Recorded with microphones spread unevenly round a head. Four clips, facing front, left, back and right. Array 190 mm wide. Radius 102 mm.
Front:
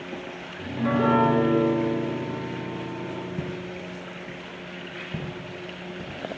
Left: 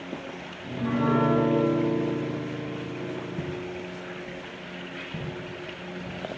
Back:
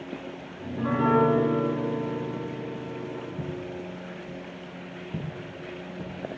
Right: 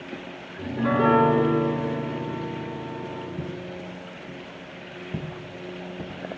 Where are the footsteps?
20° left, 1.5 m; by 6.1 s 120° right, 2 m.